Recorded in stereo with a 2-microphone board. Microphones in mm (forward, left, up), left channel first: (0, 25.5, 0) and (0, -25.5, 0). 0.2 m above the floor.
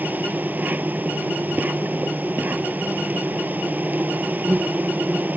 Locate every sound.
0.0 s an insect: 35° right (ahead or behind)